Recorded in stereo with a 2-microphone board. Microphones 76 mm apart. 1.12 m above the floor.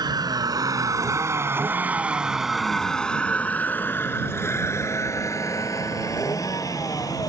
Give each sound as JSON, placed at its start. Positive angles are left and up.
{"t": 0.0, "sound": "a vehicle", "side_deg": -65}